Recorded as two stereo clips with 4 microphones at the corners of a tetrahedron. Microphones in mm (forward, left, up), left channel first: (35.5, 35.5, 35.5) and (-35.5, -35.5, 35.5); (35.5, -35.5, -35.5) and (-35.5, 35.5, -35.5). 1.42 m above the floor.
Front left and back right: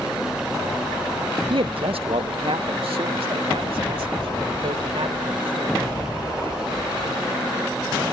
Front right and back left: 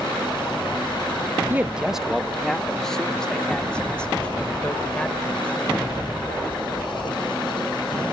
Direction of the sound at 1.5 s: 155° right.